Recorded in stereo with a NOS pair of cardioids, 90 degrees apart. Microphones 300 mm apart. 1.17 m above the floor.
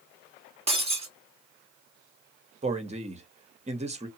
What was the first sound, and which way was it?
Breaking glass, 20° right.